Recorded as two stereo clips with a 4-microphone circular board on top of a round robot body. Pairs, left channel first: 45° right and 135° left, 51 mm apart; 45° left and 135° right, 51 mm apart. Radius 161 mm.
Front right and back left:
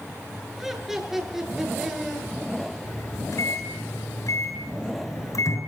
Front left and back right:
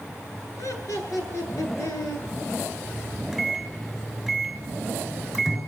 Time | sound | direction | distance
0.6 | laughter | 55° left | 8 m
2.9 | a microwave | 35° right | 7 m